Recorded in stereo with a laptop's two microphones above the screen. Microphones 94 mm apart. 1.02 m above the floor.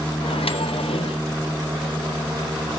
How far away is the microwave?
About 0.8 m.